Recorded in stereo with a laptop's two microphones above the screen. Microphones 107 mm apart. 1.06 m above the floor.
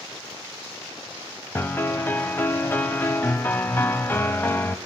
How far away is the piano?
About 1.0 m.